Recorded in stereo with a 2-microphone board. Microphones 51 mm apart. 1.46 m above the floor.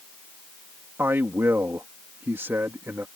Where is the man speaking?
50° right (ahead or behind).